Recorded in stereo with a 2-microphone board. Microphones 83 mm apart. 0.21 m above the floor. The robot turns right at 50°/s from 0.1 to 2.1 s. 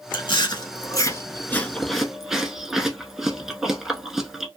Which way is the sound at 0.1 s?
75° left (ahead or behind).